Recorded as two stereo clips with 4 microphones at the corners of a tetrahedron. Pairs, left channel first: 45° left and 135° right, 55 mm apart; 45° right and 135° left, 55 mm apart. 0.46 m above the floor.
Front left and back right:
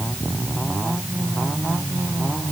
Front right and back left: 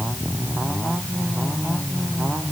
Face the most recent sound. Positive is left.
No sound to turn to.